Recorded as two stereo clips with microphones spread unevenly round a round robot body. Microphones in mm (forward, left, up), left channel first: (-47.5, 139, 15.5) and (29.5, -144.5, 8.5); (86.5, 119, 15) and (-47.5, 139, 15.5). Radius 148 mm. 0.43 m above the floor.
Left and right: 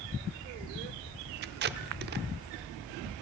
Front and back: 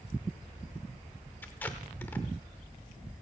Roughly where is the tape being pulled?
Right.